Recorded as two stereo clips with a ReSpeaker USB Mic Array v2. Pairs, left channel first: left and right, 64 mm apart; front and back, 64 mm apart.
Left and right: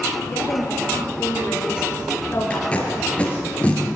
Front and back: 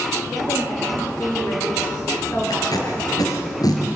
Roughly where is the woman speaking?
Ahead left.